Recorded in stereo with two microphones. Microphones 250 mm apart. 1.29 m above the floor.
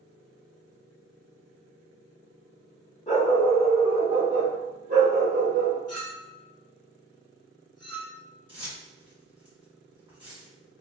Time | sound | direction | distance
3.1 | a dog barking | 30° left (ahead or behind) | 1.0 m
5.9 | a clink | 75° left (ahead or behind) | 0.9 m
8.5 | keys jangling | 20° right (ahead or behind) | 1.5 m